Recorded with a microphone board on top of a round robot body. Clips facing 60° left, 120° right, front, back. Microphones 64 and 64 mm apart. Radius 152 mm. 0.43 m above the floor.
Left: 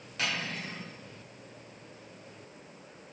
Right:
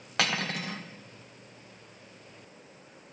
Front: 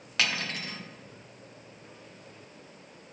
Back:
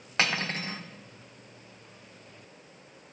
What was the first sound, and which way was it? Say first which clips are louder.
Cutlery clinking: right 4 dB, back 2 dB; 125° right.